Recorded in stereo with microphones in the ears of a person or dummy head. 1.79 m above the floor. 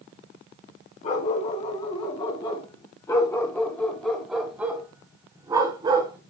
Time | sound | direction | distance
1.0 | a dog barking | 40° left (ahead or behind) | 4.5 m